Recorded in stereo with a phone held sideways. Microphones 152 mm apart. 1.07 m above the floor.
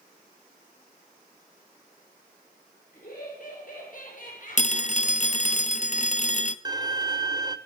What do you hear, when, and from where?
2.9 s laughter: 60° left (ahead or behind), 5.5 m; by 5.6 s 55° left (ahead or behind), 2.5 m
4.6 s a phone ringing: 50° left (ahead or behind), 0.5 m
6.7 s a violin: 25° right (ahead or behind), 0.5 m